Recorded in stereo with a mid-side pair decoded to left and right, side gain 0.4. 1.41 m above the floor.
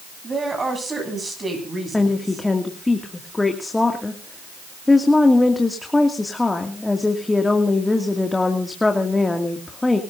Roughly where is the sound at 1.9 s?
Ahead.